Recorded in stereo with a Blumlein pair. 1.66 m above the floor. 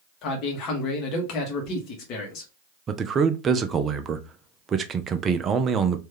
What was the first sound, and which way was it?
A man speaking, 35° left.